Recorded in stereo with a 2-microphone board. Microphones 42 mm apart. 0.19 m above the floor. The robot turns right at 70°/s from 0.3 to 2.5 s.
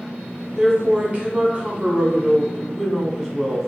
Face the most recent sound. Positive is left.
turn(degrees=-5)